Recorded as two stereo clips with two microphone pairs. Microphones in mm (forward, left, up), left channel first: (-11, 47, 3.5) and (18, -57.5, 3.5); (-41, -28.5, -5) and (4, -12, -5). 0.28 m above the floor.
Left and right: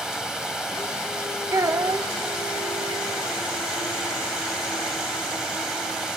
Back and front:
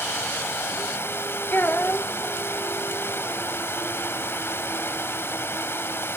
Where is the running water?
160° right, 0.7 m.